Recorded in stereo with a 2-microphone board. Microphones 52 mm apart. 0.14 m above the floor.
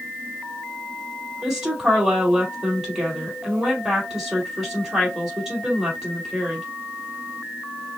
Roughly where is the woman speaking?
Centre.